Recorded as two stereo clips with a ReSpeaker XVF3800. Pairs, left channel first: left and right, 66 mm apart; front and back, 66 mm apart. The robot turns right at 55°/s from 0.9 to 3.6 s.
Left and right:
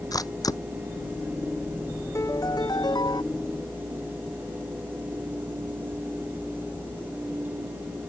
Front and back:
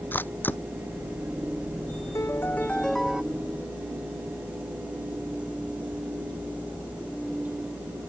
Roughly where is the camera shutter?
Ahead left.